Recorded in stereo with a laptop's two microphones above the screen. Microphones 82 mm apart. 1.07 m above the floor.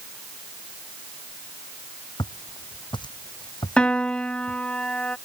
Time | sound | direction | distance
2.2 | footsteps | 65° left (ahead or behind) | ?
3.8 | a piano | 10° left (ahead or behind) | ?